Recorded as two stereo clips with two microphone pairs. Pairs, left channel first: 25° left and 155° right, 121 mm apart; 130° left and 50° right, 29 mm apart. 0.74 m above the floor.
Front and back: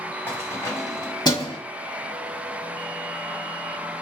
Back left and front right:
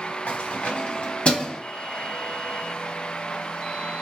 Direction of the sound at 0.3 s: 100° left.